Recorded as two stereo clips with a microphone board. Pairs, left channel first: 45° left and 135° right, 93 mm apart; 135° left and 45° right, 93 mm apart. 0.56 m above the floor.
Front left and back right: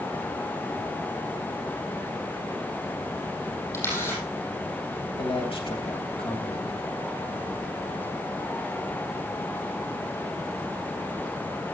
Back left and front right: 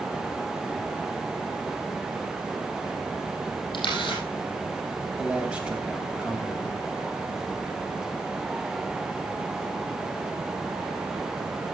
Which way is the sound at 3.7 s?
105° left.